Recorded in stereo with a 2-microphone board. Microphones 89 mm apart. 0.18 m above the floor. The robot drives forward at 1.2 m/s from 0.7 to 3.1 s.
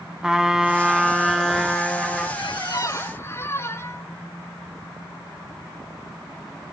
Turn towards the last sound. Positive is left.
turn(degrees=25)  # may be behind; listen again after turning